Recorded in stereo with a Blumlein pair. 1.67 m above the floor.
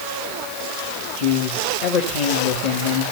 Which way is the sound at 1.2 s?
40° left.